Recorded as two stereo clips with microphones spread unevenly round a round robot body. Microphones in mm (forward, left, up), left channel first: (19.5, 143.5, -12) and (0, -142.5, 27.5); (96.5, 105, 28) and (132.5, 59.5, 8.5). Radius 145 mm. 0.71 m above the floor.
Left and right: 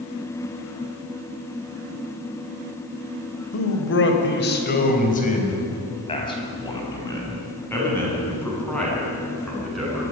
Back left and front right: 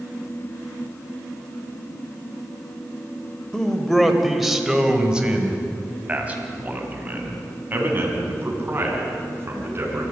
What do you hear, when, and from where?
3.5 s a man speaking: 45° left, 3.5 m; by 10.0 s 5° right, 8.5 m